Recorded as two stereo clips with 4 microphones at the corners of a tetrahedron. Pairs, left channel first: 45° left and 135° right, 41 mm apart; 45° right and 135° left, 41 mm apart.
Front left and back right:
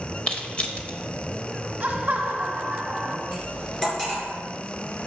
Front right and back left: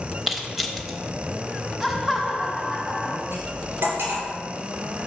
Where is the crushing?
50° left, 0.7 m.